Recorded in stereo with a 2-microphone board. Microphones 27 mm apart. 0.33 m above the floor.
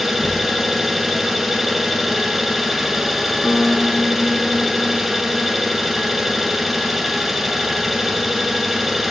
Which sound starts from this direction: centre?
An engine running, at 0.0 s.